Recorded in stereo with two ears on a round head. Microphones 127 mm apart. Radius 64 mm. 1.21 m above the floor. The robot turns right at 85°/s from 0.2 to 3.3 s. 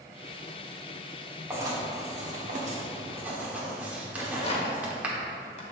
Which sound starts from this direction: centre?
Writing, at 1.5 s.